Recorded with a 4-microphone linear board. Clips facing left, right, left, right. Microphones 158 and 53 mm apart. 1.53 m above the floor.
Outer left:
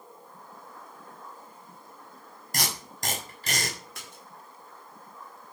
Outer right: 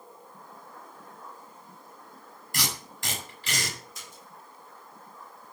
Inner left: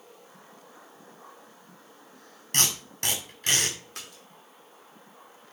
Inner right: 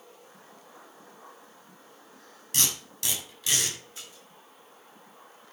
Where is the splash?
70° left (ahead or behind), 5 m.